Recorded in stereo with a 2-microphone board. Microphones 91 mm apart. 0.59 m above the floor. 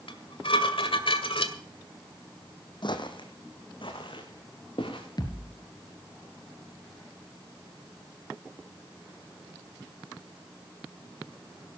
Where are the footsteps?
55° left (ahead or behind), 1.7 m; by 5.0 s 70° left (ahead or behind), 4 m.